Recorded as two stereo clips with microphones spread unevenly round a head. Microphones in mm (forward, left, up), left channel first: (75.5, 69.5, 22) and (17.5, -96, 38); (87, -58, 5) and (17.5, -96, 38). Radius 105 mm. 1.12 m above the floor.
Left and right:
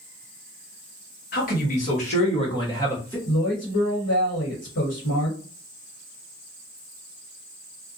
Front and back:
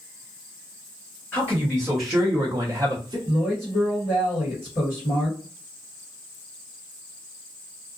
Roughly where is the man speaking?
Left.